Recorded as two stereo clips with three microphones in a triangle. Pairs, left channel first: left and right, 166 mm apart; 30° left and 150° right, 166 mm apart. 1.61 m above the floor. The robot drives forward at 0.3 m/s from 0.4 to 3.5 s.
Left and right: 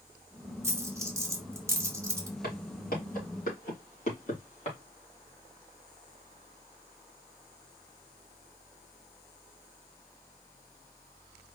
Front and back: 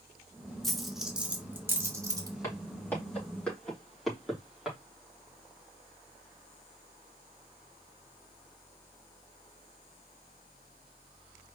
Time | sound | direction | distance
0.6 | a dropped coin | 55° right | 1.0 m
2.4 | footsteps | 100° left | 3.5 m